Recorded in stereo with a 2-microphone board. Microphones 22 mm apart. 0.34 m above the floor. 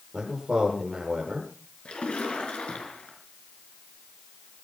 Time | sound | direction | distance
0.1 | a man speaking | 5° right (ahead or behind) | 7.5 m
1.9 | a splash | 60° left (ahead or behind) | 5 m